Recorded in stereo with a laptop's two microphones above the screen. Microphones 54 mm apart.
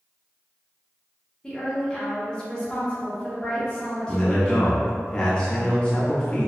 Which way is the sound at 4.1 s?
20° left (ahead or behind).